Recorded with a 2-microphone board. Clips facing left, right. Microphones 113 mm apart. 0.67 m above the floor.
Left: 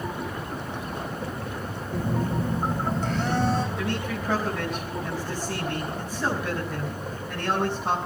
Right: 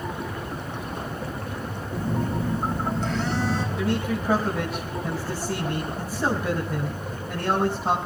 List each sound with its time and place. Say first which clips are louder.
1.9 s a phone buzzing: even; 55° left (ahead or behind), 3.5 m
3.8 s a man speaking: right 4 dB; 10° right (ahead or behind), 5 m